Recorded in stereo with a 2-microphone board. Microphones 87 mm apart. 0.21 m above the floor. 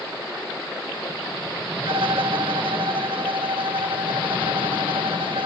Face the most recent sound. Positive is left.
turn(degrees=-75)  # may be behind; listen again after turning